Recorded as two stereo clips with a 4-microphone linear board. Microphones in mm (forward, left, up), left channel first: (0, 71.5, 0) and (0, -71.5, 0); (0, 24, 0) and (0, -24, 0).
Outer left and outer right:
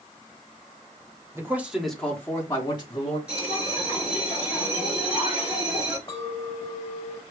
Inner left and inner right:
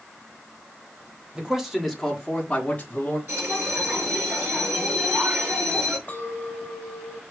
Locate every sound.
1.4 s a man speaking: 20° right (ahead or behind), 1.3 m; by 3.2 s 40° left (ahead or behind), 1.8 m
3.3 s a bell: 45° right (ahead or behind), 4 m
6.1 s a clink: 40° left (ahead or behind), 1.3 m